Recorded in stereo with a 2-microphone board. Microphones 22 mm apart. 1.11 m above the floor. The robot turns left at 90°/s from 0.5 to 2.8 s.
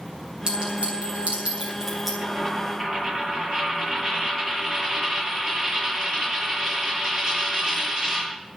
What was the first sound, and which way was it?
A clink, 40° right (ahead or behind).